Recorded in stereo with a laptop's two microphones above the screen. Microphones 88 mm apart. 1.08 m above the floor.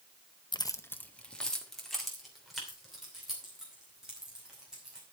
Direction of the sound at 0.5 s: 60° left (ahead or behind).